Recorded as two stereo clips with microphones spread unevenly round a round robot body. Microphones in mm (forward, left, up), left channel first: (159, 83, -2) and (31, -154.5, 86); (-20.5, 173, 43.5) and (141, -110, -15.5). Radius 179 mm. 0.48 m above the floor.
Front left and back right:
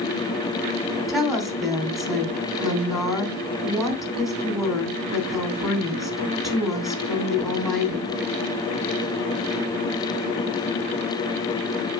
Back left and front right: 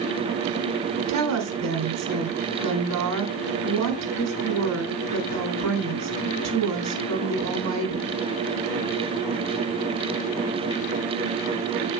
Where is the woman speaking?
25° right, 3.5 m.